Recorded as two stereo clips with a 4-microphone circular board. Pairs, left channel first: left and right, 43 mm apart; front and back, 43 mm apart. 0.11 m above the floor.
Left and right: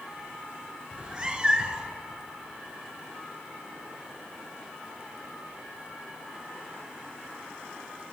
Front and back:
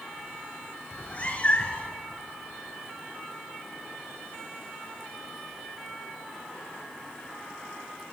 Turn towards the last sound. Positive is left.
turn(degrees=-35)